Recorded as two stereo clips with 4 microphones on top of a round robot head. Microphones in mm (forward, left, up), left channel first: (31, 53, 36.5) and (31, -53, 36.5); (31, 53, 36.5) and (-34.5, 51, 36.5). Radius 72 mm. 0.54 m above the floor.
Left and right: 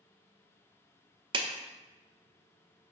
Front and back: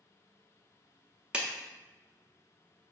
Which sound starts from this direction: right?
A clap, at 1.3 s.